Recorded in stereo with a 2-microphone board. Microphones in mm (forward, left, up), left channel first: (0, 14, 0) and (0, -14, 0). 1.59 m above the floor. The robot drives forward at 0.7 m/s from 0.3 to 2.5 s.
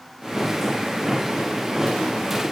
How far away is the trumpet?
I don't hear a trumpet.